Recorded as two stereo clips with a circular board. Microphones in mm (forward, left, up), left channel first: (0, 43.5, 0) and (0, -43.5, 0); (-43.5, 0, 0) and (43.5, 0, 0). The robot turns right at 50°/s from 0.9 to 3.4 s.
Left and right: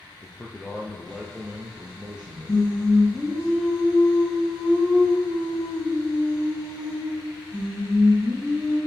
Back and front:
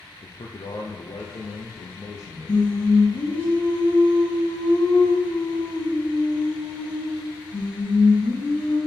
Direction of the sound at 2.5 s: 150° left.